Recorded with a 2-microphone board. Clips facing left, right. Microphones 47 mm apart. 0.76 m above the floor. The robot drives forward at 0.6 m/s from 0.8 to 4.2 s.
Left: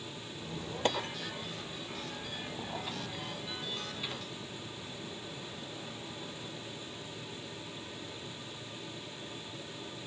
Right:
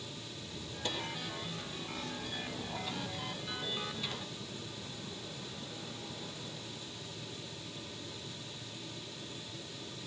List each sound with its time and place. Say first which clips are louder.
0.3 s a squeak: left 4 dB; 45° left (ahead or behind), 0.5 m; by 6.9 s 10° left (ahead or behind), 2 m